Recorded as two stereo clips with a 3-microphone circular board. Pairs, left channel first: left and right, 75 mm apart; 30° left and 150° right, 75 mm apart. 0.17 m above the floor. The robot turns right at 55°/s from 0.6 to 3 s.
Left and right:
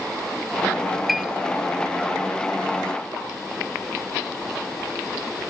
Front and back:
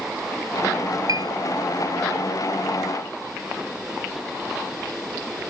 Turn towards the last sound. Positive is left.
turn(degrees=-75)